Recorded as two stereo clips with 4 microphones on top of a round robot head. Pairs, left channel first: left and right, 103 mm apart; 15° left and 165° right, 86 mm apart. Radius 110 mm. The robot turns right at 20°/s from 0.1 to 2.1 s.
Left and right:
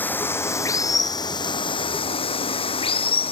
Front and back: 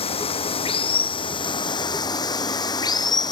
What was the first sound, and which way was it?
Running water, 15° left.